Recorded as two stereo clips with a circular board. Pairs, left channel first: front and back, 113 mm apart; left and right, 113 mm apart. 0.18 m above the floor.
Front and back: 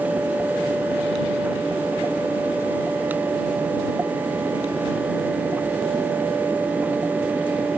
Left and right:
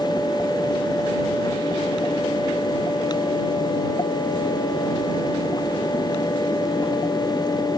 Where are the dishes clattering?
I don't hear dishes clattering.